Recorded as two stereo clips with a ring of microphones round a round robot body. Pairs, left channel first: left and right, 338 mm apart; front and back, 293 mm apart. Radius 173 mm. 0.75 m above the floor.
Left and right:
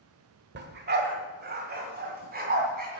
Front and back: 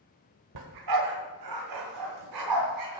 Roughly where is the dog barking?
Behind right.